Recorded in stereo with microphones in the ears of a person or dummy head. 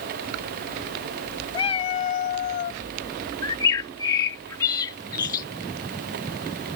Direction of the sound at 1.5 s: 30° left (ahead or behind).